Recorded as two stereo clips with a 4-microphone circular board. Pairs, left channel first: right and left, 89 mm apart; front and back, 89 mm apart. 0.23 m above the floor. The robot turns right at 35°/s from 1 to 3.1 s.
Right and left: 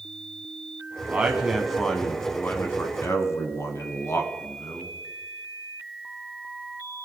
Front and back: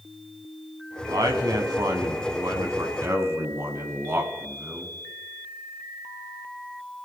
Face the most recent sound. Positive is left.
turn(degrees=-130)